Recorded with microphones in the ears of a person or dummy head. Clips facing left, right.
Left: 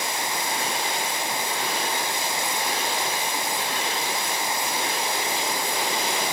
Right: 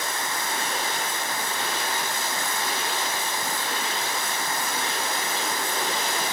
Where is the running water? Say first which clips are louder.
Left 2 dB; 15° left (ahead or behind).